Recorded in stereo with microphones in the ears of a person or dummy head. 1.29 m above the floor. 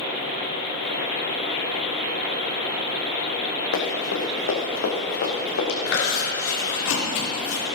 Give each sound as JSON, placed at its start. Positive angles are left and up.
{"t": 3.7, "sound": "running footsteps", "side_deg": 70, "distance_m": 4.0}
{"t": 5.9, "sound": "chewing", "side_deg": 85, "distance_m": 4.0}